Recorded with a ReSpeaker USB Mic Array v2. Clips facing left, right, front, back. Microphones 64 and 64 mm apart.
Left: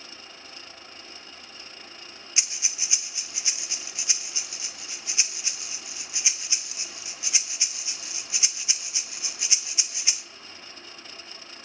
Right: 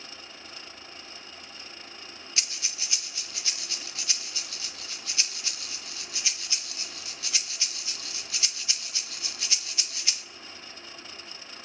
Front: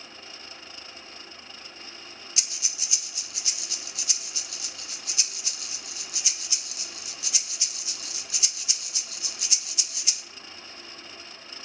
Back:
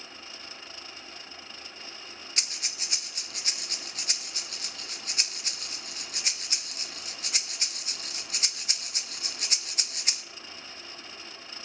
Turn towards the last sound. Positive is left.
turn(degrees=155)